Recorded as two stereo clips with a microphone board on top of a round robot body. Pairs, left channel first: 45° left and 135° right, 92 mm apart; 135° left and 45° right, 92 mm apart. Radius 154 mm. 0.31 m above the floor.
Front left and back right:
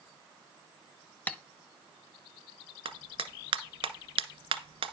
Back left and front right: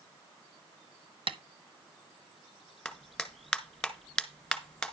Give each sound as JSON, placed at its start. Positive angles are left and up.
{"t": 1.3, "sound": "tapping", "azimuth_deg": -25, "distance_m": 1.0}
{"t": 2.9, "sound": "a clap", "azimuth_deg": -140, "distance_m": 1.8}